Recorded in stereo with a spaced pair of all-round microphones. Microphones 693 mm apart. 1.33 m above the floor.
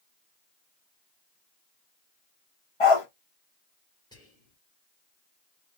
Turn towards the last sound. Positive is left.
turn(degrees=5)  # may be behind; listen again after turning